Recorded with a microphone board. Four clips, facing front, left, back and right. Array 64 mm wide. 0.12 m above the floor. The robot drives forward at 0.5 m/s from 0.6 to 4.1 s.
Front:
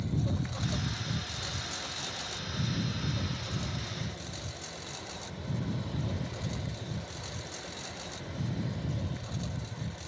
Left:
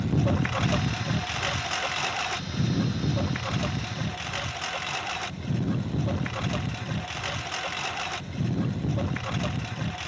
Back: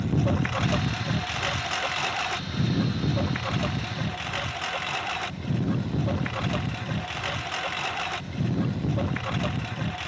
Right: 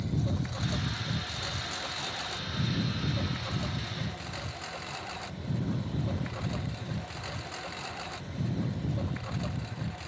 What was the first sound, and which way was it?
A lawn mower, 140° left.